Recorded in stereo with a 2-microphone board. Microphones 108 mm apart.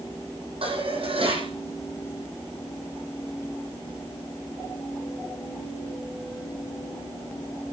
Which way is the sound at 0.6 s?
60° right (ahead or behind).